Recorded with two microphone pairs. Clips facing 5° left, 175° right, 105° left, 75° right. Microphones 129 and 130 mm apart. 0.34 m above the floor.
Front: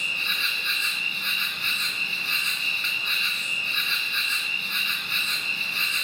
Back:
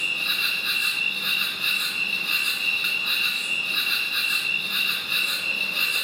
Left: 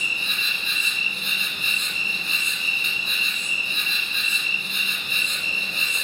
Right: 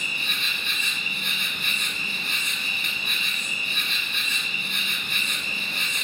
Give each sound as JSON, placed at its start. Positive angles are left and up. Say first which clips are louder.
{"t": 0.0, "sound": "an insect", "louder": "even, left 1 dB", "azimuth_deg": -100, "distance_m": 1.9}